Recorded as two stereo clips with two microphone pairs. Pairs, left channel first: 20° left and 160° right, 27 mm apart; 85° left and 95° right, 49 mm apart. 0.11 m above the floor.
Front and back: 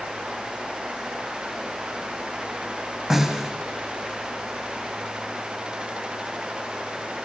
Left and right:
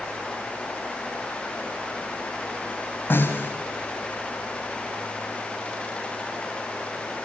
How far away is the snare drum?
About 4.5 m.